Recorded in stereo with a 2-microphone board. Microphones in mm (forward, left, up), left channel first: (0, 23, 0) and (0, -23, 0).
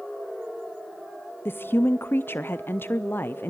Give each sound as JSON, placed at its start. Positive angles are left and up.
{"t": 1.4, "sound": "a woman speaking", "side_deg": 50, "distance_m": 0.5}